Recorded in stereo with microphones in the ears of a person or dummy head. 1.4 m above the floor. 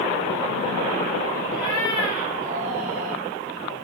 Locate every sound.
1.5 s a cat meowing: 80° right, 6.5 m; by 3.2 s 75° right (ahead or behind), 5 m